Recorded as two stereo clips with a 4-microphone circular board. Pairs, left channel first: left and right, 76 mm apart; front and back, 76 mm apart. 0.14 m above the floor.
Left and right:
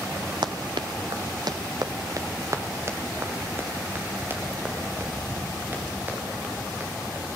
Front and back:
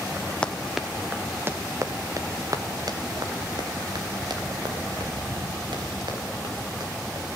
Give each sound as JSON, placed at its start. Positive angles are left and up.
{"t": 0.4, "sound": "running footsteps", "azimuth_deg": -75, "distance_m": 1.5}